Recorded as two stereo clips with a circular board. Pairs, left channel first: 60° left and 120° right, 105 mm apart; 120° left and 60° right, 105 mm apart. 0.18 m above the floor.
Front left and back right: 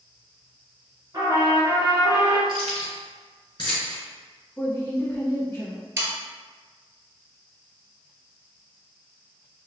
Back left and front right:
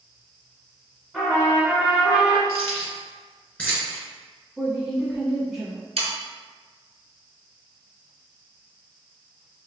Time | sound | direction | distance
1.1 | a trumpet | 150° right | 1.4 m
2.5 | keys jangling | 45° left | 1.7 m
4.6 | a woman speaking | 25° left | 1.3 m
6.0 | sawing | 55° right | 1.0 m